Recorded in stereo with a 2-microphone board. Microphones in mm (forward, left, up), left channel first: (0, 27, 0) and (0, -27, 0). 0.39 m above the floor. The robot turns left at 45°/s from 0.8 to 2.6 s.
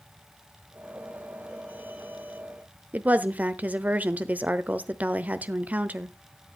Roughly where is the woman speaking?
Right.